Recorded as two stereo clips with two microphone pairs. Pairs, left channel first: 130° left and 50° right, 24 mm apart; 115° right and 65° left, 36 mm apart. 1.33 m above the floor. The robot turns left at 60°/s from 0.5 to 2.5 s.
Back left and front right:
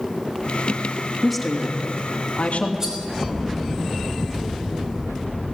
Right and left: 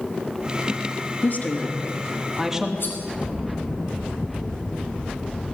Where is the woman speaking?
135° right, 3 m; by 2.7 s 145° left, 3 m.